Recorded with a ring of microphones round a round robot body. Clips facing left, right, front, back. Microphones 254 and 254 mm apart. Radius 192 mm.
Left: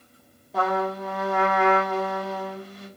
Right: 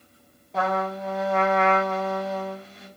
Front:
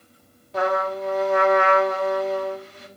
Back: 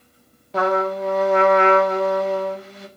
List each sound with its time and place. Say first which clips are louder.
0.5 s a trumpet: left 1 dB, back 3 dB; 175° left, 1.6 m